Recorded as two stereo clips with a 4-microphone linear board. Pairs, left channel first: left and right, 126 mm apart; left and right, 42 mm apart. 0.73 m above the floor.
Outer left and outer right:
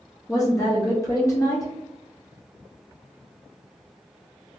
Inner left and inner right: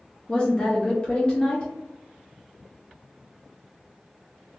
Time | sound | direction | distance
0.3 | a woman speaking | 25° left (ahead or behind) | 0.8 m